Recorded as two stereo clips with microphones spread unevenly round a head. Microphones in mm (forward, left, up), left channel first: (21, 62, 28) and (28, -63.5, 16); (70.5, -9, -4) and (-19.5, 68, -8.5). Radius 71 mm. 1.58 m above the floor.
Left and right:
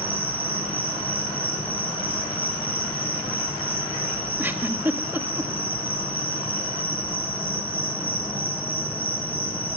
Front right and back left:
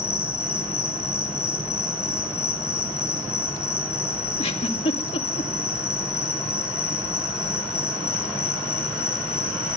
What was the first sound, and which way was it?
An insect, 10° right.